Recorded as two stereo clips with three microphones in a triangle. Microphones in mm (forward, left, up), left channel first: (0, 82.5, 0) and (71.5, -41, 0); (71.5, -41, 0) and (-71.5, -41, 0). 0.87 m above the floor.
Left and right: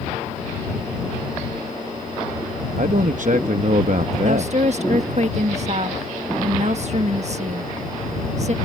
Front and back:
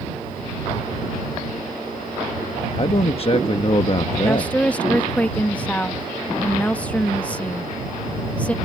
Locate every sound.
2.8 s a man speaking: 45° right
4.2 s a woman speaking: 80° right